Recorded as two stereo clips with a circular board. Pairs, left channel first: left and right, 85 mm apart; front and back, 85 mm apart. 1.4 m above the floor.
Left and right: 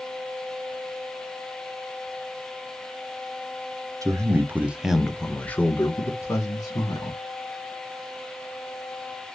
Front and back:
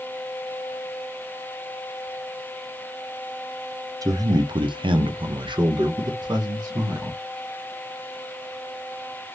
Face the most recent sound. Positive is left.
turn(degrees=135)